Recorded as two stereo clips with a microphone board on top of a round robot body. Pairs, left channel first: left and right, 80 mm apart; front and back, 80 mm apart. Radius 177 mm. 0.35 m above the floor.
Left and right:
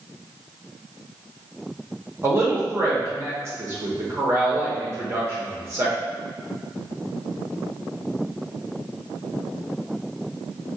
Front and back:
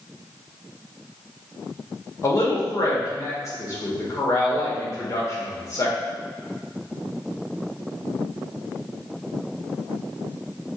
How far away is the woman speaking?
About 1.4 m.